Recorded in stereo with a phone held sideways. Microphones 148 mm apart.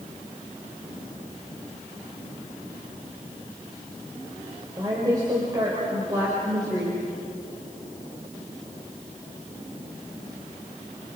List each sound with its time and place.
4.8 s a woman speaking: 25° right (ahead or behind), 5.5 m